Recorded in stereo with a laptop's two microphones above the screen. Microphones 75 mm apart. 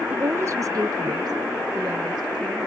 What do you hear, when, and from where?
0.1 s a woman speaking: 20° right (ahead or behind), 0.6 m; by 2.7 s 65° right (ahead or behind), 1.9 m